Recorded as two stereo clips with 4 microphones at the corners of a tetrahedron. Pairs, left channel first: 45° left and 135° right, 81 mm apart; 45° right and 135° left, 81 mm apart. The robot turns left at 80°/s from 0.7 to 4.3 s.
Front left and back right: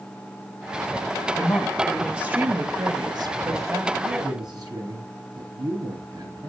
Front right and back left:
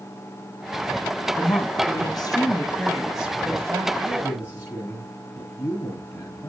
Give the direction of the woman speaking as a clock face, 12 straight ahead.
12 o'clock.